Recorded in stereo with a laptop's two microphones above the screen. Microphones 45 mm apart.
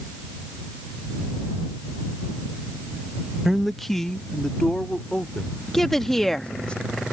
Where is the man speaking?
15° right (ahead or behind); by 6.7 s 25° left (ahead or behind).